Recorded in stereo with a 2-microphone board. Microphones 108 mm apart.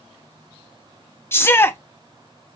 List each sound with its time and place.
1.3 s a shout: 20° left (ahead or behind), 0.6 m